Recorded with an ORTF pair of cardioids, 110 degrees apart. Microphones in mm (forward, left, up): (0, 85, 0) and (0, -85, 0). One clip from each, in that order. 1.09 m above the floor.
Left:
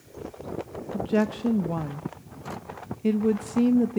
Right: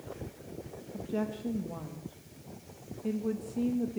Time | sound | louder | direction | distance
0.9 | a woman speaking | left 10 dB | 55° left | 1.0 m